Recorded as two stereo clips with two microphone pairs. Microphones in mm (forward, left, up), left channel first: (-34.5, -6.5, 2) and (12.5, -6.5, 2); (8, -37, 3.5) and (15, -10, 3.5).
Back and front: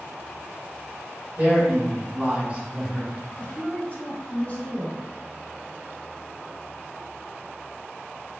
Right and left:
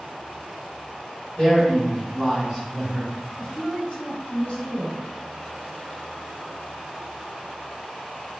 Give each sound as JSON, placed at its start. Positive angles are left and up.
{"t": 1.4, "sound": "a man speaking", "azimuth_deg": -40, "distance_m": 1.8}
{"t": 3.4, "sound": "a woman speaking", "azimuth_deg": -140, "distance_m": 1.9}